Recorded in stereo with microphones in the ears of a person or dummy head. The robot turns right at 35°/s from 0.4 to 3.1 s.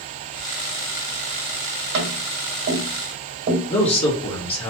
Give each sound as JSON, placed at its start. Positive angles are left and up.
{"t": 1.9, "sound": "tapping", "side_deg": -55, "distance_m": 1.5}
{"t": 3.7, "sound": "a man speaking", "side_deg": 35, "distance_m": 1.2}